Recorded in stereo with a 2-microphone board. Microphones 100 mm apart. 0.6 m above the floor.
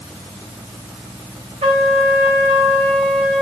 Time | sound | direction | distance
1.6 | a trumpet | 75° right (ahead or behind) | 2 m